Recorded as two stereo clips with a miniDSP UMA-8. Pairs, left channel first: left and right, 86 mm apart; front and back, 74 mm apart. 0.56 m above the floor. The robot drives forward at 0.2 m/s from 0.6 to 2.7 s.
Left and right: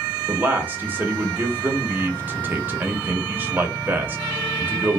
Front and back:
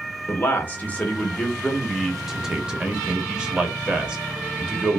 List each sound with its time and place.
0.3 s a man speaking: 35° right, 0.7 m; by 5.0 s 115° right, 0.6 m